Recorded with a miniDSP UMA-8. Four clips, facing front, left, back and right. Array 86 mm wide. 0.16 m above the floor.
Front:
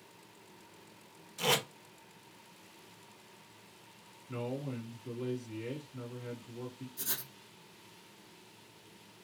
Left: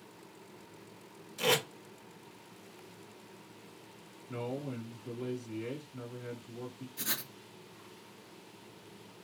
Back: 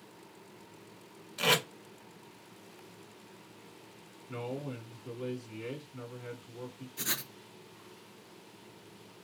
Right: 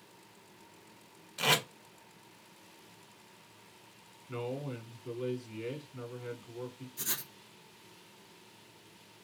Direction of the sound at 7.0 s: 160° left.